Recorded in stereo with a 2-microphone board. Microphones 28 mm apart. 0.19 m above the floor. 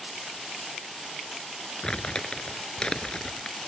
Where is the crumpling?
35° left (ahead or behind).